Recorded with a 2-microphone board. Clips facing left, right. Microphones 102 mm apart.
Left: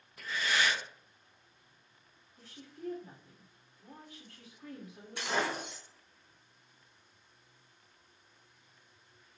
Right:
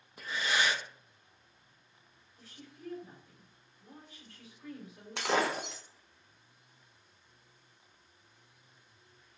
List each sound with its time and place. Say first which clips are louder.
0.2 s breathing: even; 20° right (ahead or behind), 0.6 m
2.4 s a woman speaking: left 4 dB; 50° left (ahead or behind), 2 m
5.2 s breaking glass: right 3 dB; 80° right, 0.5 m